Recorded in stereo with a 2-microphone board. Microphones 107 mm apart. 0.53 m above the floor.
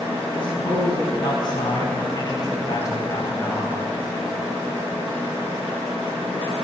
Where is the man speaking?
50° left (ahead or behind), 6.5 m; by 3.8 s 30° left (ahead or behind), 4 m.